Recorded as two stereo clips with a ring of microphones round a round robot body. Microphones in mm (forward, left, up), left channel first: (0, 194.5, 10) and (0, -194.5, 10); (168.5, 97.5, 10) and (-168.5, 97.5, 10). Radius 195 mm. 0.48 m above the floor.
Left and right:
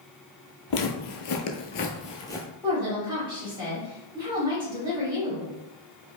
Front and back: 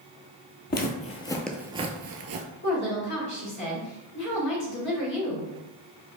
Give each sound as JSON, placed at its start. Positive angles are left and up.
{"t": 0.7, "sound": "footsteps", "azimuth_deg": 55, "distance_m": 0.8}
{"t": 2.6, "sound": "a woman speaking", "azimuth_deg": -20, "distance_m": 1.5}